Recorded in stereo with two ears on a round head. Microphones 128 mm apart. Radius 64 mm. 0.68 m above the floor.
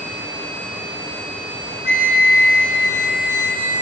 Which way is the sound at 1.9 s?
65° left (ahead or behind).